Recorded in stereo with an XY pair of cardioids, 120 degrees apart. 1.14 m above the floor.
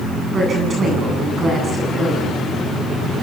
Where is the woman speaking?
35° right, 8.5 m.